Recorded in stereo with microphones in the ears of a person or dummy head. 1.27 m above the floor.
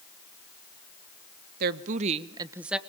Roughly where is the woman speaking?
Right.